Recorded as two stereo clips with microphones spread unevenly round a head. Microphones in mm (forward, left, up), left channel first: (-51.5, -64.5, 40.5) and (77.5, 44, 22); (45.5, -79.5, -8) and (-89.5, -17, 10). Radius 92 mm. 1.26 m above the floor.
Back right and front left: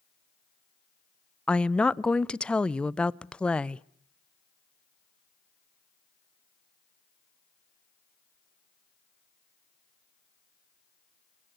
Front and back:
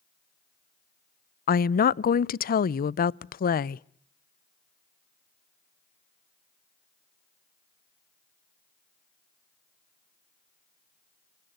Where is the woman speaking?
55° right, 0.5 m.